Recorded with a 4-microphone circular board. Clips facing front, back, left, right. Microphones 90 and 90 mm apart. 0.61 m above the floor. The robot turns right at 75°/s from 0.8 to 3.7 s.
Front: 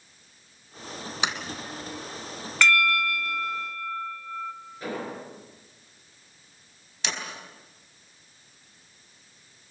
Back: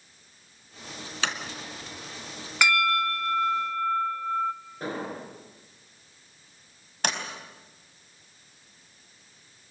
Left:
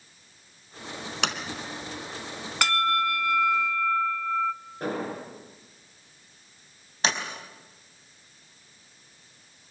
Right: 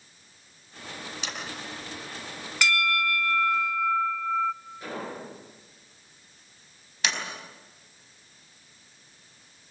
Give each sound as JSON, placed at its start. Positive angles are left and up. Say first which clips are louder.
{"t": 1.2, "sound": "a sliding door", "louder": "front 1 dB, left 10 dB", "azimuth_deg": 75, "distance_m": 2.5}
{"t": 2.6, "sound": "a bell", "louder": "even, left 2 dB", "azimuth_deg": 105, "distance_m": 1.0}
{"t": 4.8, "sound": "an explosion", "louder": "even, left 7 dB", "azimuth_deg": 130, "distance_m": 9.0}
{"t": 7.0, "sound": "a sliding door", "louder": "back 4 dB, left 3 dB", "azimuth_deg": 145, "distance_m": 4.5}